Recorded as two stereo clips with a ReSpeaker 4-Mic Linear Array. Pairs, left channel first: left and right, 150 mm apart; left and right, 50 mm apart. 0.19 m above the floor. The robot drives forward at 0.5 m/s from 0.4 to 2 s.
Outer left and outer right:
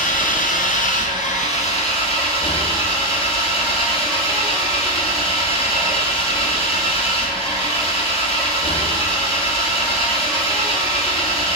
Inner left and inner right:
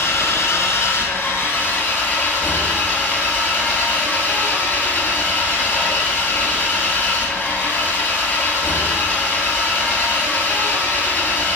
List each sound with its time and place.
0.0 s an engine running: 70° left (ahead or behind), 0.9 m; by 11.6 s 40° left (ahead or behind), 1.2 m